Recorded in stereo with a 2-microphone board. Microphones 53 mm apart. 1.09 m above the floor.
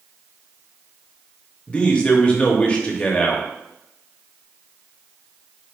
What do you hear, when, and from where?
1.7 s a man speaking: 20° left (ahead or behind), 0.6 m